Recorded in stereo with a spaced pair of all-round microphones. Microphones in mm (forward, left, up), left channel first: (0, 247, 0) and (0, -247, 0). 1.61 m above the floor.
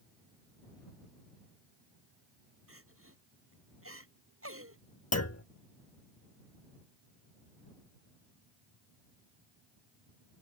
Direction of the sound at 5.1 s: 30° left (ahead or behind).